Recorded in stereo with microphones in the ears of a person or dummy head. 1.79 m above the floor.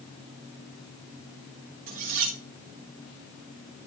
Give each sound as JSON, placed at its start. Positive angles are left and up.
{"t": 1.9, "sound": "cutlery clinking", "side_deg": -45, "distance_m": 1.5}